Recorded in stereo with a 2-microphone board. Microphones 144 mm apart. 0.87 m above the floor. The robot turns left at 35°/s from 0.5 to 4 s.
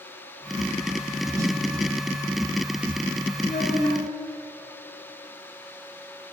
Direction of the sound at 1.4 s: 25° right (ahead or behind).